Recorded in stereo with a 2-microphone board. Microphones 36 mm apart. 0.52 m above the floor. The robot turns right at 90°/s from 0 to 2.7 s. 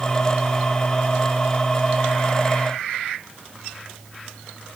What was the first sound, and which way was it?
Only background noise.